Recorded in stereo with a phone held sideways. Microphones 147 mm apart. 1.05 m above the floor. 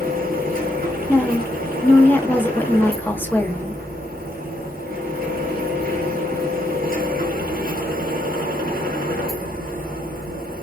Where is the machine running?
80° right, 0.7 m.